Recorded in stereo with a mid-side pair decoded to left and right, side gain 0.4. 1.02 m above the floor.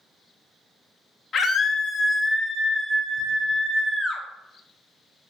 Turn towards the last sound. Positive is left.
turn(degrees=10)